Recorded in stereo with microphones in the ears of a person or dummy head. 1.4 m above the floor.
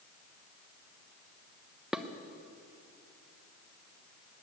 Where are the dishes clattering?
5° left (ahead or behind), 0.6 m.